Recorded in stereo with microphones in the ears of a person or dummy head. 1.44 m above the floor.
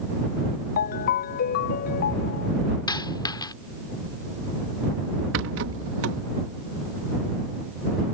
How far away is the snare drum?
No snare drum in this recording.